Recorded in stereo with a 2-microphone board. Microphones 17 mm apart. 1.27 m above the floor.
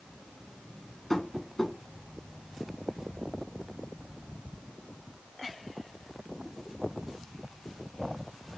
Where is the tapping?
30° left (ahead or behind), 1.7 m.